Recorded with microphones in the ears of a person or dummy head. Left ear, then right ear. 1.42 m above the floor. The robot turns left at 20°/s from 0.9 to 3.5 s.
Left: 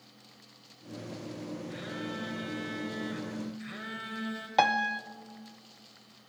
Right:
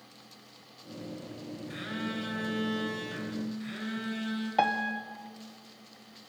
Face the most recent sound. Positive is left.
turn(degrees=30)  # may be behind; listen again after turning